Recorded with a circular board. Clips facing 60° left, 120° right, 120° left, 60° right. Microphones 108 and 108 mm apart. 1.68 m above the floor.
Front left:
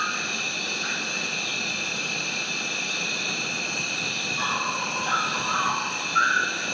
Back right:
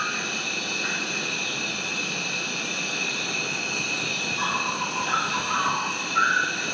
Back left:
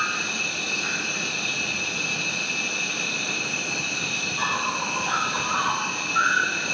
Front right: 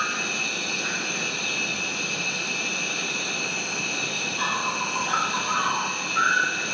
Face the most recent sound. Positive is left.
turn(degrees=105)